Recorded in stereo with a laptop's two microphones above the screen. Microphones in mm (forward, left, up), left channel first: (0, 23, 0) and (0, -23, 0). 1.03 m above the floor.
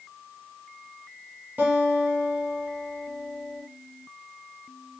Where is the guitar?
35° right (ahead or behind), 0.9 m.